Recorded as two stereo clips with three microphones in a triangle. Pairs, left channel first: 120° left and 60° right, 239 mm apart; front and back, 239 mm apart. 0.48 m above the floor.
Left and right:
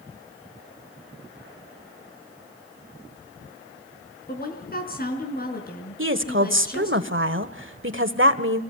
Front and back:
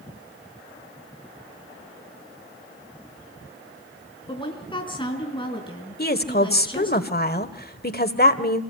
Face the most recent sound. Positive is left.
turn(degrees=-40)